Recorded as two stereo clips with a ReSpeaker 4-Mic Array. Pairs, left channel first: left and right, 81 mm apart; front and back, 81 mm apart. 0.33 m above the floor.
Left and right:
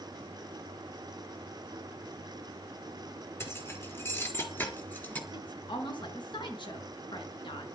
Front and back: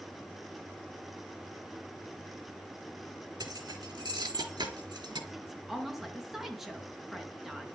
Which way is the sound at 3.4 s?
150° left.